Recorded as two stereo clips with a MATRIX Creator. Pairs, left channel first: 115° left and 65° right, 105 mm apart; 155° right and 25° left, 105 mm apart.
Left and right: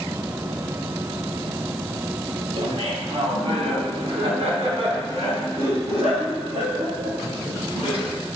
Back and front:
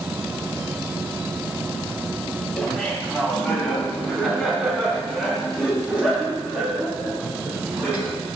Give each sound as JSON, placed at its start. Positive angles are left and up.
{"t": 2.6, "sound": "laughter", "azimuth_deg": -70, "distance_m": 2.5}